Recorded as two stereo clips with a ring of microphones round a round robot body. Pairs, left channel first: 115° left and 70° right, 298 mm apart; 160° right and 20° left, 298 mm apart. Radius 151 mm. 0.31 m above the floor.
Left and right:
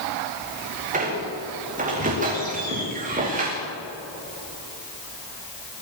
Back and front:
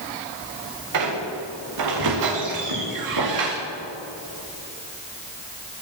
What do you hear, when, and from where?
0.9 s a squeak: straight ahead, 8.5 m